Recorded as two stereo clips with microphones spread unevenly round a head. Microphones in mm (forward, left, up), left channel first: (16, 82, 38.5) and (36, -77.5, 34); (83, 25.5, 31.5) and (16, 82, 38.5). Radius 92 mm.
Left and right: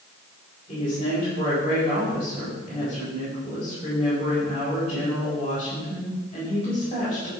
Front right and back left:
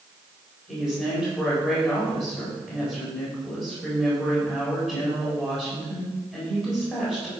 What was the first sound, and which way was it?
A woman speaking, 40° left.